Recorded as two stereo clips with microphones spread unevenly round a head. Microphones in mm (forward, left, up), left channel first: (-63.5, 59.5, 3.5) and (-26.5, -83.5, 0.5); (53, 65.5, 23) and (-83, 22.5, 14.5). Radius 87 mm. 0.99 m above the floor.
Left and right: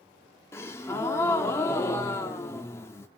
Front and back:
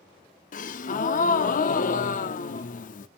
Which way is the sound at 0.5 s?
30° left.